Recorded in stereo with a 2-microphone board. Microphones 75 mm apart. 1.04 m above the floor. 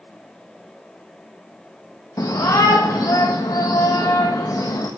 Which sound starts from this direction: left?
A shout, at 2.2 s.